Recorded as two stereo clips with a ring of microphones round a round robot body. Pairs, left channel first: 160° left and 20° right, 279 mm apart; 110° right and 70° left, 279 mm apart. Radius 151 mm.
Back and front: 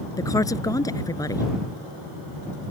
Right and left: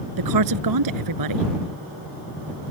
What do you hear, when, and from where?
0.2 s a woman speaking: 80° left